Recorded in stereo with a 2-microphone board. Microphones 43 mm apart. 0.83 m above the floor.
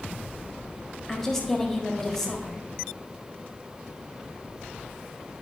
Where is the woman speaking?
10° left (ahead or behind), 1.3 m.